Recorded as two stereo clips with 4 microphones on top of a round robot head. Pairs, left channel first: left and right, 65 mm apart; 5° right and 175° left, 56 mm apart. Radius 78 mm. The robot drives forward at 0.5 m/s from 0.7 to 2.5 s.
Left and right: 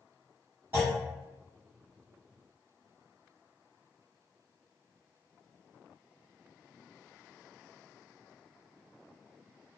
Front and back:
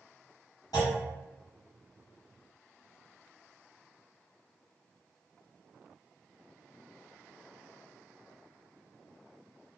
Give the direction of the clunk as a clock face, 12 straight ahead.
1 o'clock.